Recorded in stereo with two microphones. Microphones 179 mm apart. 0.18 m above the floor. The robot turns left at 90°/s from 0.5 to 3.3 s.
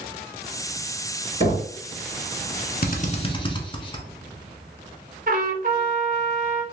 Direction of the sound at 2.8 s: 55° left (ahead or behind).